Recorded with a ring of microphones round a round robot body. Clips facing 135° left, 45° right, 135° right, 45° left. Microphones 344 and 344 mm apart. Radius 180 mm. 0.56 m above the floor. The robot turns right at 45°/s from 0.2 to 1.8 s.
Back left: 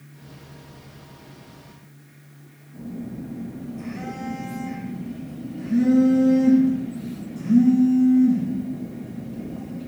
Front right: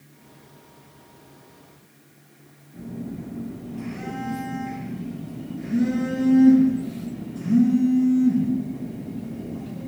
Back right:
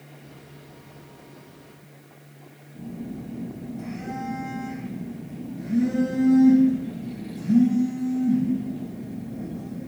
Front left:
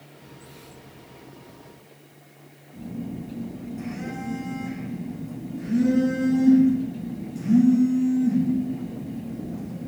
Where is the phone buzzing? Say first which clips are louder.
Even, front left 1 dB; 40° left, 2.0 m.